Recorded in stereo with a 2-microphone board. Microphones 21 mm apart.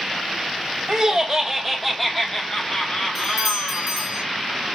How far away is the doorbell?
About 0.9 m.